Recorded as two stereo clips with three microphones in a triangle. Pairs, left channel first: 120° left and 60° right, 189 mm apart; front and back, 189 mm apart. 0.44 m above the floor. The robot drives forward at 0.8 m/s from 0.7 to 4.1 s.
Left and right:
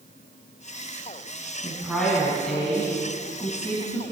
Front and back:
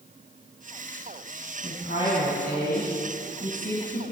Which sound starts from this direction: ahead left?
A woman speaking, at 1.6 s.